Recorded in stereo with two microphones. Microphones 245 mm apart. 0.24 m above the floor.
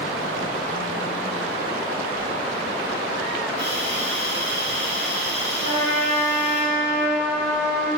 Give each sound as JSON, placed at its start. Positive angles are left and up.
{"t": 3.6, "sound": "a hiss", "side_deg": -45, "distance_m": 6.0}
{"t": 5.6, "sound": "a trumpet", "side_deg": -65, "distance_m": 5.5}